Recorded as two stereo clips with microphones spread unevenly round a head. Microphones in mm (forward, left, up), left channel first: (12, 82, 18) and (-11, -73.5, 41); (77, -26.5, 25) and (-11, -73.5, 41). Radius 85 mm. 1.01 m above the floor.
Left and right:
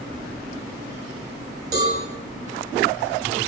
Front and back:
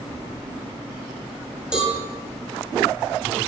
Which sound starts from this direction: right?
A cowbell, at 1.7 s.